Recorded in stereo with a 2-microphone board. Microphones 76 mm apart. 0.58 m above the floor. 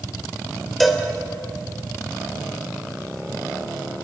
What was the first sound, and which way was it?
A cowbell, centre (ahead or behind).